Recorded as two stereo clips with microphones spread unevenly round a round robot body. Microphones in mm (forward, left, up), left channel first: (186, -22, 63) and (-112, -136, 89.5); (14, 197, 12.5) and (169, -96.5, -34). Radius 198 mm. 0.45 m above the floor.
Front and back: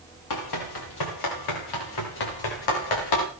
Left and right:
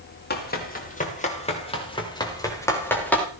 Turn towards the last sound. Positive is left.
turn(degrees=30)